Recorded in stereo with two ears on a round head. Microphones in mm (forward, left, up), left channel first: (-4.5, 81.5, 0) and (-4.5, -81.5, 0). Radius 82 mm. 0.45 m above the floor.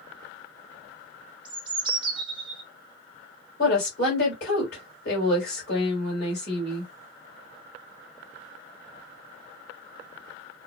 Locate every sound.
1.4 s a bird: 25° right (ahead or behind), 0.8 m
3.6 s a woman speaking: 55° left (ahead or behind), 2.5 m